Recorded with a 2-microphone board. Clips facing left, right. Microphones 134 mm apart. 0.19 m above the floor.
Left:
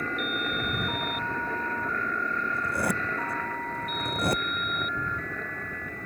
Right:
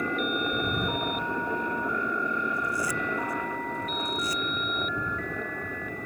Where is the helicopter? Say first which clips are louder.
Right 3 dB; 15° right (ahead or behind).